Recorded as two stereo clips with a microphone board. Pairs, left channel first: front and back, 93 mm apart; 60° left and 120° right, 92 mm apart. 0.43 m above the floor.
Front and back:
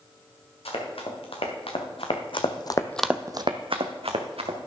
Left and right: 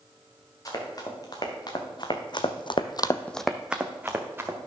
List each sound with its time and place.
0.7 s running footsteps: 10° left, 3.5 m; by 4.6 s 175° left, 2.5 m